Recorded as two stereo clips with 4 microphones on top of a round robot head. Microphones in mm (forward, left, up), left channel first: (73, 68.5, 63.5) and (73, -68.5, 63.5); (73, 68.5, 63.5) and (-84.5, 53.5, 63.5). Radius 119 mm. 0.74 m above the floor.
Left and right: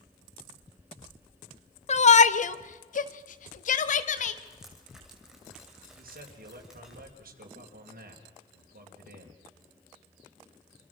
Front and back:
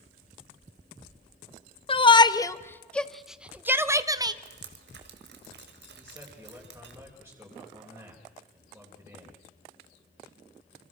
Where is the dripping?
Straight behind, 2 m.